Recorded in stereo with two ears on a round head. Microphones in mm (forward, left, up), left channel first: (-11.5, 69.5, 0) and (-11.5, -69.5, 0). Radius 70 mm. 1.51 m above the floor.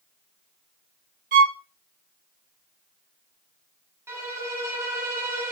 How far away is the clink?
I don't hear a clink.